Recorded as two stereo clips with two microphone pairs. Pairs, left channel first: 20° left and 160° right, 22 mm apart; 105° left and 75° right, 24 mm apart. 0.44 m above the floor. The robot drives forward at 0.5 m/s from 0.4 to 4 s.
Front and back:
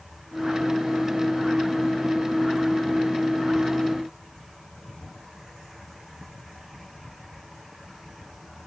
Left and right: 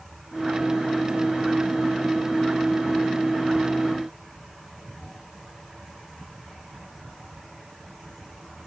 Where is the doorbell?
No doorbell in this recording.